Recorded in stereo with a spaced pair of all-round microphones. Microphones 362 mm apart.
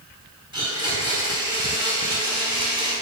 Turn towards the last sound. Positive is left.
turn(degrees=45)  # may be behind; listen again after turning